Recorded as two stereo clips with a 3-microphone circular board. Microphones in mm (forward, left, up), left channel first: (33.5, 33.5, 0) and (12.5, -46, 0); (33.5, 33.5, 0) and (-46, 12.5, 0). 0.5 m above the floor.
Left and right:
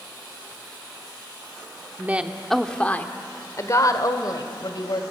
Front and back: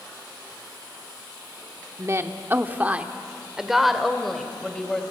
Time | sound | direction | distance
2.0 | a woman speaking | 155° right | 1.2 m